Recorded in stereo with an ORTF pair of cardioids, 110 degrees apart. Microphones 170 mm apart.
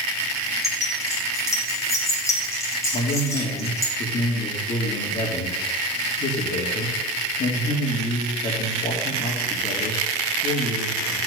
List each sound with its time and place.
0.6 s keys jangling: 20° left, 6 m
2.9 s a man speaking: 50° left, 3.5 m